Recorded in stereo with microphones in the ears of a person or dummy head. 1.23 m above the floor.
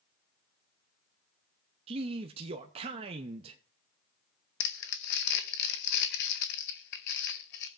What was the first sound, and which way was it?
A man speaking, 30° right (ahead or behind).